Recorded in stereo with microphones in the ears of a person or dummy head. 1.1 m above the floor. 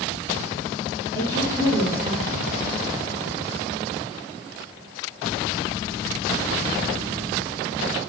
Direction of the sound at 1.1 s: 75° right (ahead or behind).